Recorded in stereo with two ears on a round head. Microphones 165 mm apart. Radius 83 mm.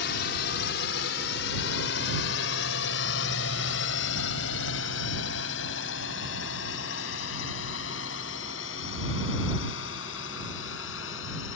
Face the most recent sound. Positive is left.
turn(degrees=70)  # may be behind; listen again after turning